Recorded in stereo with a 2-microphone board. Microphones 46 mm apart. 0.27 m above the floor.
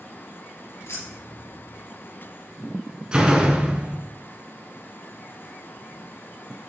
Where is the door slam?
20° right (ahead or behind), 1.7 m.